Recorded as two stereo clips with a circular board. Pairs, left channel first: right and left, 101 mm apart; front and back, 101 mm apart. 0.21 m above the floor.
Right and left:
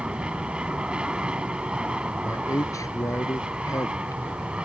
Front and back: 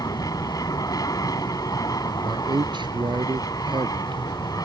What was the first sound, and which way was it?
An aircraft, 15° left.